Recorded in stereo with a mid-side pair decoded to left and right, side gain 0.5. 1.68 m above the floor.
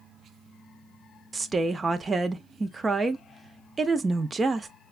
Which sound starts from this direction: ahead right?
A woman speaking, at 1.3 s.